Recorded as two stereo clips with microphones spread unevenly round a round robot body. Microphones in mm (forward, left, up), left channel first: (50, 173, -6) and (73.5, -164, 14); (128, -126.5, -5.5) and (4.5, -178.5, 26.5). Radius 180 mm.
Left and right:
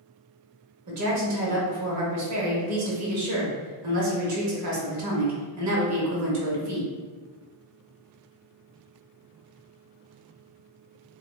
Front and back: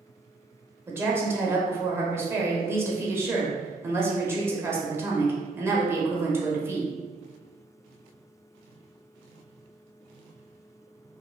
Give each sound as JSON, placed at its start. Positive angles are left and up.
{"t": 0.9, "sound": "a woman speaking", "azimuth_deg": -75, "distance_m": 1.0}